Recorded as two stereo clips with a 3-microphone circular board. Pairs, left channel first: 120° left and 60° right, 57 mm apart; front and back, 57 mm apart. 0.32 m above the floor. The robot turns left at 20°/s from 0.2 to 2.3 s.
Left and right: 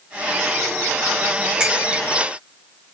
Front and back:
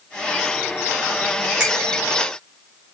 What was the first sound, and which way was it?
A finger snap, 120° right.